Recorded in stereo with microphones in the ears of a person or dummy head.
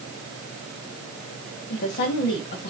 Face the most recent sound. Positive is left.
turn(degrees=50)  # may be behind; listen again after turning